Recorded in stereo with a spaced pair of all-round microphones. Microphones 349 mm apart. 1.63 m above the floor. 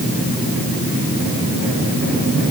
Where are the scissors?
I don't hear scissors.